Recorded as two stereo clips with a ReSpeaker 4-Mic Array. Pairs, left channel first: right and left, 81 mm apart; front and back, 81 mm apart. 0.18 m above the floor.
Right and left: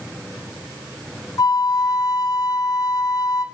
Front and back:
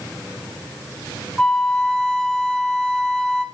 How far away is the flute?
About 0.8 m.